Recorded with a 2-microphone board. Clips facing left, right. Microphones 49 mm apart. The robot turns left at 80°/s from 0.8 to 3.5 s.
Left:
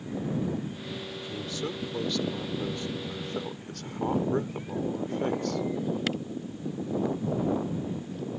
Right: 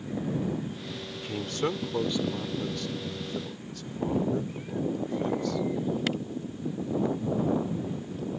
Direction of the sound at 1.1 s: 75° right.